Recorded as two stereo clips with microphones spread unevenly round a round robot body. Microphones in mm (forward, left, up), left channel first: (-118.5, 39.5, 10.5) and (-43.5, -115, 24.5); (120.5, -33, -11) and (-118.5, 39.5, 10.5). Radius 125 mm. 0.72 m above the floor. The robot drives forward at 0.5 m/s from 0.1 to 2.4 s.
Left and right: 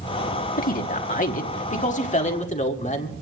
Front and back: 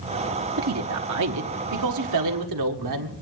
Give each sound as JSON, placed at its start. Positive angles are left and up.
{"t": 0.6, "sound": "a man speaking", "azimuth_deg": 135, "distance_m": 1.0}